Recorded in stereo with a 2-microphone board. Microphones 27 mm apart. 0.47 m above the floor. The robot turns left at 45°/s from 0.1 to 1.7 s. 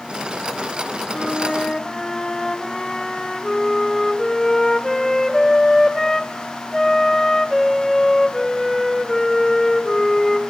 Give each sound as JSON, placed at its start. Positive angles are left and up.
{"t": 1.1, "sound": "a flute", "side_deg": 35, "distance_m": 3.0}